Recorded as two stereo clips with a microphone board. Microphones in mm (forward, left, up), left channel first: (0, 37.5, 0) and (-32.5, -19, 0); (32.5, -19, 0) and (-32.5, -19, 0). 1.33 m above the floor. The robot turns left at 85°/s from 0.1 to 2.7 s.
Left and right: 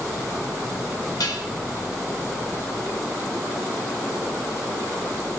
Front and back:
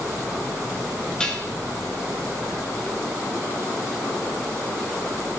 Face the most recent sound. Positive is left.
turn(degrees=-50)